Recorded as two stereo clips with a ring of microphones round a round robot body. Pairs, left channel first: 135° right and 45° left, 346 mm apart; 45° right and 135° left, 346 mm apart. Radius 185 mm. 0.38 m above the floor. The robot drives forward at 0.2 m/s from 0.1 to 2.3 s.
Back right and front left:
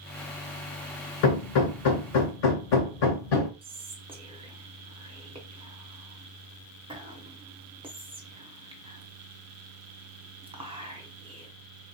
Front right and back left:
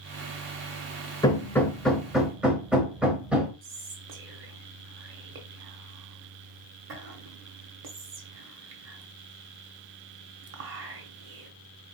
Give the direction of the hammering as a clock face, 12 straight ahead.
4 o'clock.